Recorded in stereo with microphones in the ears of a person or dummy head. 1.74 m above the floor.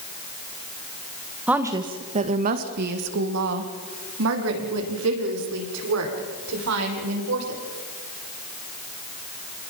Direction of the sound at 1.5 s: 10° right (ahead or behind).